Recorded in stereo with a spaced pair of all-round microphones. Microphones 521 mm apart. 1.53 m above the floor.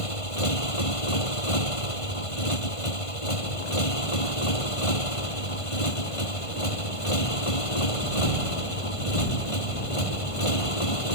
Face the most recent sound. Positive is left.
turn(degrees=85)